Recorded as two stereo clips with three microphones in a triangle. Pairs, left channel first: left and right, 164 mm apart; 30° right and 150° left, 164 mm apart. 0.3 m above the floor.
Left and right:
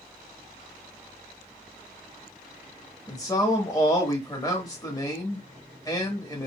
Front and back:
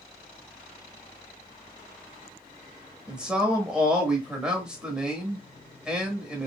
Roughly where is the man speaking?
Left.